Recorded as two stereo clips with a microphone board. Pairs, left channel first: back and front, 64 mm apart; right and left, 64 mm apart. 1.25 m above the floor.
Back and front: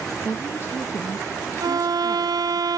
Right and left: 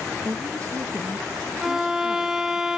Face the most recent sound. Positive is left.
turn(degrees=5)